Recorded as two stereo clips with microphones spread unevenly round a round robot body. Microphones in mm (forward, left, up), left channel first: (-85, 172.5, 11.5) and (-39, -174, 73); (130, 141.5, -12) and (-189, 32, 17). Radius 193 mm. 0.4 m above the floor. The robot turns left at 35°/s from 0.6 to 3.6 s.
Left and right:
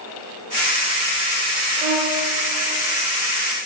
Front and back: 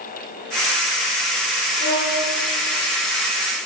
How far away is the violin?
About 4.5 m.